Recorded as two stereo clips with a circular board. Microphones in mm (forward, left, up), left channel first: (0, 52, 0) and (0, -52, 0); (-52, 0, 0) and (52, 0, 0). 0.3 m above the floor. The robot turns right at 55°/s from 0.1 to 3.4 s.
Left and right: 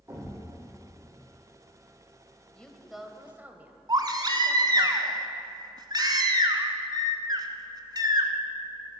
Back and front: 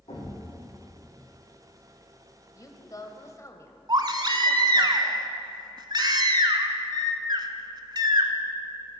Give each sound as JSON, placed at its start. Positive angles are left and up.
{"t": 0.1, "sound": "a thud", "azimuth_deg": -160, "distance_m": 4.5}
{"t": 2.5, "sound": "a woman speaking", "azimuth_deg": 165, "distance_m": 1.1}
{"t": 3.9, "sound": "a baby crying", "azimuth_deg": -45, "distance_m": 0.9}